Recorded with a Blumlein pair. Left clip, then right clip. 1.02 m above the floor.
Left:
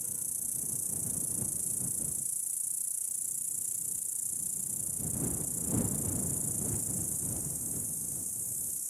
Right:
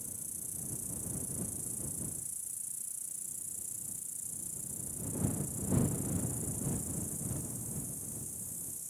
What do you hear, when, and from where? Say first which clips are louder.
0.0 s an insect: left 6 dB; 20° left